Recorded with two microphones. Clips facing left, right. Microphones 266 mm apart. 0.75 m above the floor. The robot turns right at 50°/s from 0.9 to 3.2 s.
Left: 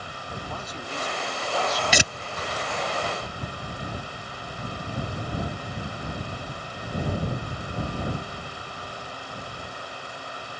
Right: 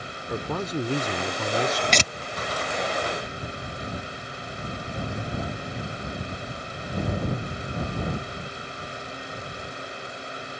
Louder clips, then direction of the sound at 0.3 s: Right 10 dB; 105° right.